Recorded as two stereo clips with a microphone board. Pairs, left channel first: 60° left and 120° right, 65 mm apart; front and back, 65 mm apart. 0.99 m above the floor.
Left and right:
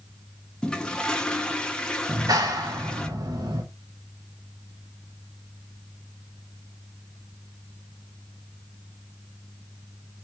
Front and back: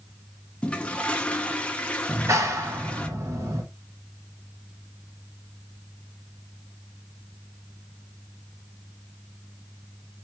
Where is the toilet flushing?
15° left, 0.6 m.